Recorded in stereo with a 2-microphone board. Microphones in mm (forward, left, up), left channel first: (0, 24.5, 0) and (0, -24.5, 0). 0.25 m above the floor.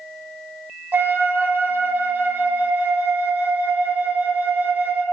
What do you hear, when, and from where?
0.9 s a flute: 40° right (ahead or behind), 0.5 m